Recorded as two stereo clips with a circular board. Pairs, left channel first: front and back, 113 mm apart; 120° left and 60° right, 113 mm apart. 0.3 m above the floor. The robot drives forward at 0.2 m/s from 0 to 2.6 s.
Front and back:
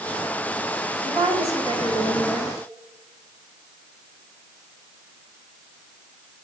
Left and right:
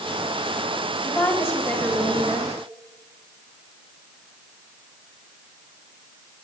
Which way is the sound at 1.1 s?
170° right.